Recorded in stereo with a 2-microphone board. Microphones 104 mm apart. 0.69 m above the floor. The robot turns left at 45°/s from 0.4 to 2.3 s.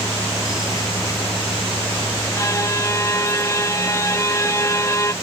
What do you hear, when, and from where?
2.4 s a violin: 30° left (ahead or behind)